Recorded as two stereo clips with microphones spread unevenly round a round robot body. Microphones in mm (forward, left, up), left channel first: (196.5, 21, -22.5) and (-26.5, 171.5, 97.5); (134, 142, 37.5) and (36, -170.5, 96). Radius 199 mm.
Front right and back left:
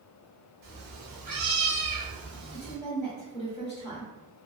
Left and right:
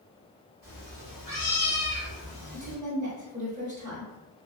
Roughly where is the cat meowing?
Behind left.